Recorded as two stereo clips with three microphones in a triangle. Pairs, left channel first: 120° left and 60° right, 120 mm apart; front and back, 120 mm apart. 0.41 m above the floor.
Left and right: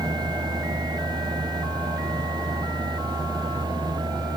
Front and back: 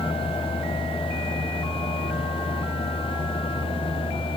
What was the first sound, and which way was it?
Only background noise.